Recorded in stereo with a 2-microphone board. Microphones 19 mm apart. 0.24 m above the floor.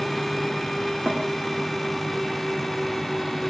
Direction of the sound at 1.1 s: 70° right (ahead or behind).